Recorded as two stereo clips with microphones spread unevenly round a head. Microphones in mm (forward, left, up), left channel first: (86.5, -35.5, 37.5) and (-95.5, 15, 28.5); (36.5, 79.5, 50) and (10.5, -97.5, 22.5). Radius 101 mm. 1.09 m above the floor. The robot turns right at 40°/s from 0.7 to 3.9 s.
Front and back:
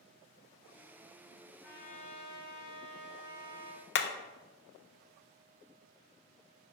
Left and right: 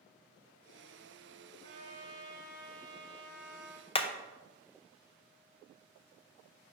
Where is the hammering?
20° left, 0.6 m.